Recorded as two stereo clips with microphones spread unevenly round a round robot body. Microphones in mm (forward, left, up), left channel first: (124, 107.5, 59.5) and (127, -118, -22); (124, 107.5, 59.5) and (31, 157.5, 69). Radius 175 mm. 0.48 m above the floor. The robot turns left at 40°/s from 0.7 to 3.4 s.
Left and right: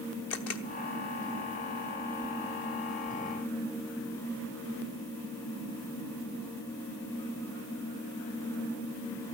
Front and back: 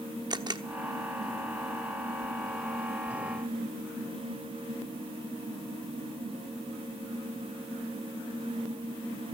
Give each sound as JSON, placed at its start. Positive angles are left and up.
{"t": 0.3, "sound": "a camera shutter", "azimuth_deg": 110, "distance_m": 1.0}